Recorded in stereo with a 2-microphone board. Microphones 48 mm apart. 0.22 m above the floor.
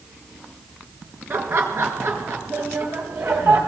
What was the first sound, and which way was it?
Laughter, 45° right (ahead or behind).